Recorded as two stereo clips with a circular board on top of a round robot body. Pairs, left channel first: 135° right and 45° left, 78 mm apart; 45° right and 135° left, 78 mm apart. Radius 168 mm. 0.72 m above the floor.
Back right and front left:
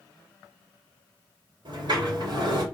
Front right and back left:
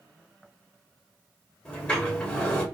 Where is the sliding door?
35° left, 3 m.